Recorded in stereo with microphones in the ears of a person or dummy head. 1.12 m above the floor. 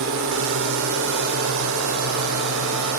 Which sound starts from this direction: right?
A drone, at 0.0 s.